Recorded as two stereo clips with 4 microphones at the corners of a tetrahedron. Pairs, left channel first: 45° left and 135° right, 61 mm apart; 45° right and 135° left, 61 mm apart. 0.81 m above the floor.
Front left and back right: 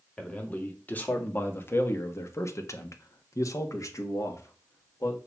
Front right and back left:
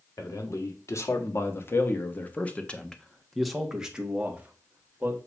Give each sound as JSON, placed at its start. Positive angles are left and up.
{"t": 0.2, "sound": "a man speaking", "azimuth_deg": -25, "distance_m": 1.8}